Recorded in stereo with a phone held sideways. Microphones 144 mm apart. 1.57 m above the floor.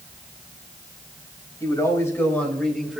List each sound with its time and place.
1.6 s a man speaking: 25° left (ahead or behind), 4 m; by 3.0 s 5° right (ahead or behind), 2.5 m